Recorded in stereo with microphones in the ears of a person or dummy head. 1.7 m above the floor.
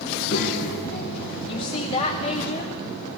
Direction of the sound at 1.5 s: 35° left (ahead or behind).